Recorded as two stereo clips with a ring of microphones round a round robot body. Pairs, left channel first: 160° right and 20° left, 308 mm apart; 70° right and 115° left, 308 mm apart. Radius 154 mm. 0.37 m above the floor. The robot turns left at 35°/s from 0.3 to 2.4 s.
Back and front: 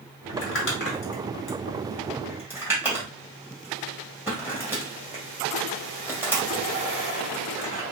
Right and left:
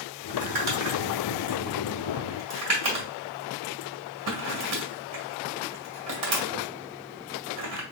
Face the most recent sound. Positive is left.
turn(degrees=105)